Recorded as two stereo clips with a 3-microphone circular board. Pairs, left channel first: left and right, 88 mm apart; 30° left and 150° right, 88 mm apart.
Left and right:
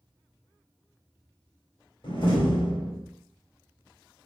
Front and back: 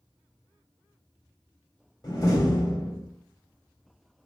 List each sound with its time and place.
2.0 s a door slam: 75° left, 2.5 m